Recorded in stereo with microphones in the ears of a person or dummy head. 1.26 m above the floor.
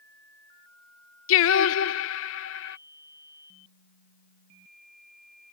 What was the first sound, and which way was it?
Singing, 70° left (ahead or behind).